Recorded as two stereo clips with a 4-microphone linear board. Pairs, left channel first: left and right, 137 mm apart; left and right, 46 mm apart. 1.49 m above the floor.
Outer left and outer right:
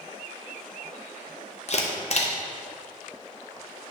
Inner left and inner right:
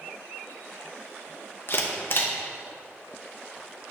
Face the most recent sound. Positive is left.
turn(degrees=50)  # may be behind; listen again after turning